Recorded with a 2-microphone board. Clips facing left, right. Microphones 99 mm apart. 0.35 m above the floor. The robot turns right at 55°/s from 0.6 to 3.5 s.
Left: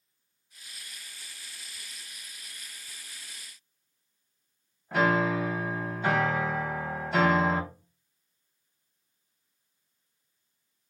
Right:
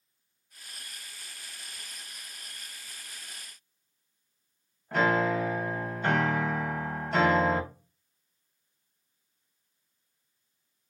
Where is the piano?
5° left (ahead or behind), 0.7 m.